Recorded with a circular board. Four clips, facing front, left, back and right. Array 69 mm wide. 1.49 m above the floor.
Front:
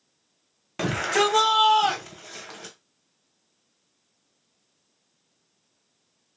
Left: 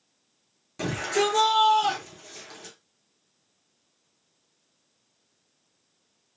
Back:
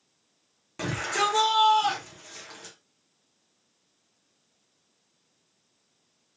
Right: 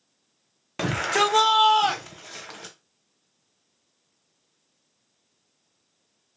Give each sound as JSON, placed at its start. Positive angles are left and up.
{"t": 0.8, "sound": "a shout", "azimuth_deg": -60, "distance_m": 0.7}